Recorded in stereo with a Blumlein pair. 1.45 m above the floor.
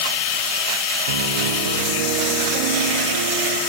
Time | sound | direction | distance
1.1 | a piano | 60° right | 1.7 m